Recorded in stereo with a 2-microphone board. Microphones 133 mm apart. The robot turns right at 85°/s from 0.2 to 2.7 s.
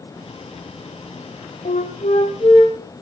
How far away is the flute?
About 4 m.